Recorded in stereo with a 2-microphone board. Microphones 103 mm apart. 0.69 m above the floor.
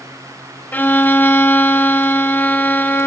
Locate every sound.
0.7 s a violin: 20° left (ahead or behind), 1.0 m